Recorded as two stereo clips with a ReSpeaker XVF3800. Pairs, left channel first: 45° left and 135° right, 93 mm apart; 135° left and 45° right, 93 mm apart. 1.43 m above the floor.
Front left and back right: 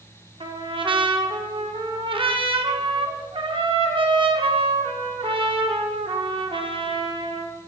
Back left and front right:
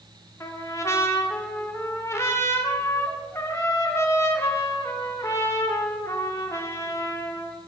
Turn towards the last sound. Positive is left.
turn(degrees=-165)